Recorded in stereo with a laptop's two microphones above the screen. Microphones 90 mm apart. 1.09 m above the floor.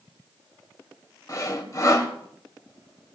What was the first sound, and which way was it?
Sawing, 40° left (ahead or behind).